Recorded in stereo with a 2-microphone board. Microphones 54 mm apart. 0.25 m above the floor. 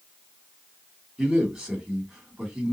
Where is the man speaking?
15° right (ahead or behind), 2.5 m.